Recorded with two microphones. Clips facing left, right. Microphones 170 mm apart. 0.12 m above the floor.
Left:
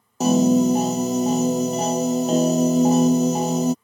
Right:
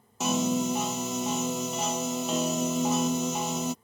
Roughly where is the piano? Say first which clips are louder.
Left 11 dB; left.